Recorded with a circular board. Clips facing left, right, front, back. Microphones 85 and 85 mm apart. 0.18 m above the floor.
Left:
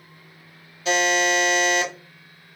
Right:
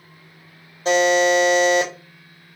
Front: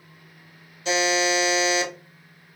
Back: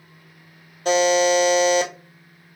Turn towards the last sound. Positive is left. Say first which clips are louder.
# right 5 dB, back 6 dB
turn(degrees=-145)